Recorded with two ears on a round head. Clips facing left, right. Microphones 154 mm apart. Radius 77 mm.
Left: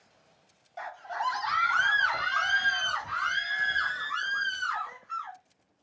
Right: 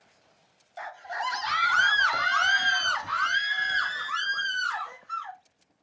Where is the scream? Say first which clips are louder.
Even; centre (ahead or behind), 0.7 m; by 5.4 s 75° right (ahead or behind), 2 m.